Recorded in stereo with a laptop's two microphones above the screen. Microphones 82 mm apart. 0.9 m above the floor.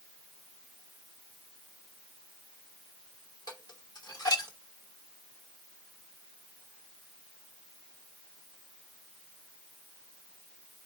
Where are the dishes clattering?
50° left (ahead or behind), 1.9 m.